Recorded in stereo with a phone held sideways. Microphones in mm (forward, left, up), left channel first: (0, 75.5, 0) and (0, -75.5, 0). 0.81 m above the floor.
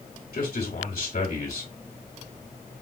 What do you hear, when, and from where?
0.3 s a man speaking: 75° left (ahead or behind), 2 m